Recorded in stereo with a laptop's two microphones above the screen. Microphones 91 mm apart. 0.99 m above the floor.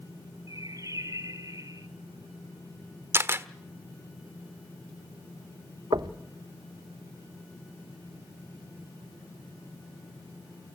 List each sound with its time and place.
0.5 s a bird: 40° right (ahead or behind), 1.8 m
3.1 s a camera shutter: 25° right (ahead or behind), 1.2 m
5.9 s knocking: 55° right (ahead or behind), 0.9 m